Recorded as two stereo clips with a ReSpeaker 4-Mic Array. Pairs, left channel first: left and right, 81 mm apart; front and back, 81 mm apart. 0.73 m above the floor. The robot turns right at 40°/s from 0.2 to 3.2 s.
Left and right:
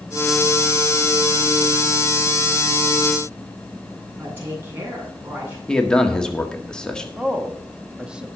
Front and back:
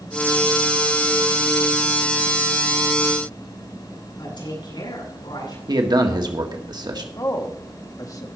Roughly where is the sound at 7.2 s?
Ahead.